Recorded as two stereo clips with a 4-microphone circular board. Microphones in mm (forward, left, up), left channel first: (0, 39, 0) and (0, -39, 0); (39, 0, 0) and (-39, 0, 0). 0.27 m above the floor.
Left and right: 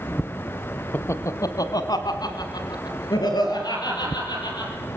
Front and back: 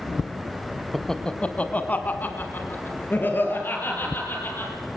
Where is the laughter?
85° left, 0.9 m; by 4.7 s 60° left, 6 m.